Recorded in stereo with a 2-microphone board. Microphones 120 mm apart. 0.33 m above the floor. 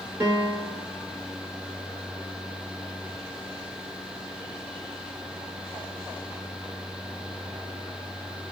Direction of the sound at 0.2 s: 25° right (ahead or behind).